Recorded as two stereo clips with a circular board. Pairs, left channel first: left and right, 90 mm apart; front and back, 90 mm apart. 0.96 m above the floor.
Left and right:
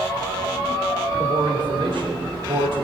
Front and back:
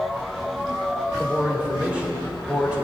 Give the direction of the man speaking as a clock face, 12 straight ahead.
3 o'clock.